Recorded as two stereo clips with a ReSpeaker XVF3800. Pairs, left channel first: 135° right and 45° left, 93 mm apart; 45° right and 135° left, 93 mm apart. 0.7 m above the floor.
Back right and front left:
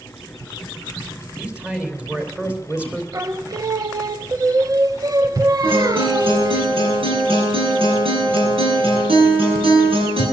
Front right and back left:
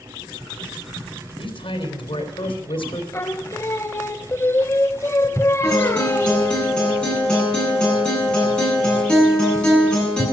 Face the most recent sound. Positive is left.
turn(degrees=35)